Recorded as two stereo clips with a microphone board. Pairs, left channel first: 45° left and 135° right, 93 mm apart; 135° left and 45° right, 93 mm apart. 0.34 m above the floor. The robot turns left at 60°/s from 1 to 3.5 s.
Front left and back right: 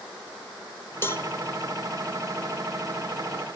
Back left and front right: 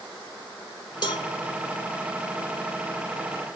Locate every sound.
1.0 s a cowbell: 105° left, 0.6 m; by 1.3 s 90° left, 0.6 m